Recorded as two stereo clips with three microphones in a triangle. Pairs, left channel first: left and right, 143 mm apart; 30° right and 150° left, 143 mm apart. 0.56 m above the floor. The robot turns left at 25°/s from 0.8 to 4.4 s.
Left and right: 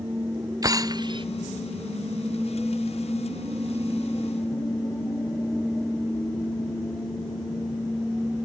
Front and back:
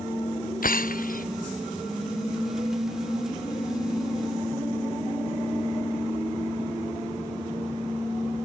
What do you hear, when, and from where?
0.6 s breaking glass: 25° right; by 1.2 s 35° right